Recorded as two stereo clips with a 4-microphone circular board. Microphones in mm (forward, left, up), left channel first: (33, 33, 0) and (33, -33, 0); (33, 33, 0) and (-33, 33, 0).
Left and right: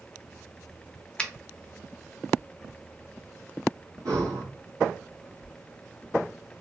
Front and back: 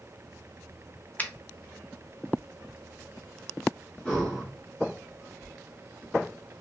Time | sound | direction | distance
1.2 | a finger snap | 30° left | 0.5 m
4.0 | breathing | 75° right | 2 m